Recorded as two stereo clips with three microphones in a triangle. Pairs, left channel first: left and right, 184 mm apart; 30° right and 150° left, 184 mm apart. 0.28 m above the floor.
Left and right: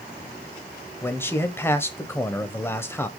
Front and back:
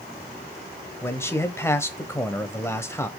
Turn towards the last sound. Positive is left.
turn(degrees=30)